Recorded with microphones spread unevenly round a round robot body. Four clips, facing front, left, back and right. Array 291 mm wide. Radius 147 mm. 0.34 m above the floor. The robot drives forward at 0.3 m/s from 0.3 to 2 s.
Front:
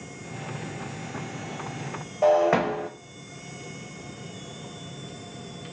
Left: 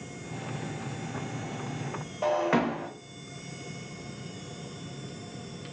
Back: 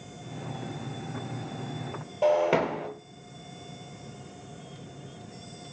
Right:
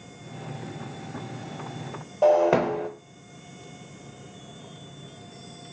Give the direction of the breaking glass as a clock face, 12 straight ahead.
3 o'clock.